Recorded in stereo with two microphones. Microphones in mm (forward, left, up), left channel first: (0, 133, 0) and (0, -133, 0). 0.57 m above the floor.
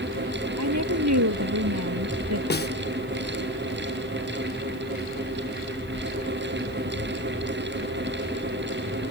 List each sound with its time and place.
0.6 s a woman speaking: 85° right
2.5 s a snare drum: 40° left (ahead or behind)